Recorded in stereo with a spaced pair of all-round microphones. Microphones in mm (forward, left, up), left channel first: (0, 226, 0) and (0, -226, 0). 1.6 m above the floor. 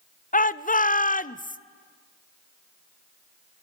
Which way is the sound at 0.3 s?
20° left (ahead or behind).